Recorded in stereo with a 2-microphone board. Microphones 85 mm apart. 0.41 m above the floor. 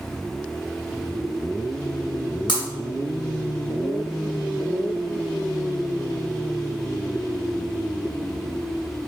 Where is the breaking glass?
70° left (ahead or behind), 2 m.